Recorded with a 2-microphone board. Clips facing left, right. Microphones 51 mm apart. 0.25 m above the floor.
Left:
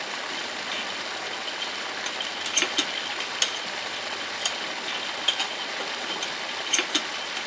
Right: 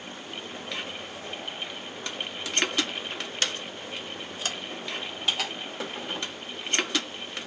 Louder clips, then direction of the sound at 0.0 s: Left 7 dB; 90° left.